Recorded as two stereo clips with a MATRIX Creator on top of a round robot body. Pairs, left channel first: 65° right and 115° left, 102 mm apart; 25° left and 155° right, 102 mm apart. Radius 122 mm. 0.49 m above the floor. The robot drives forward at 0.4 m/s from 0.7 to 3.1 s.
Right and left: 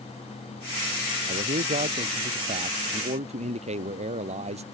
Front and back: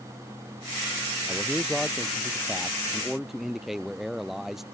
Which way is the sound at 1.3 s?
115° left.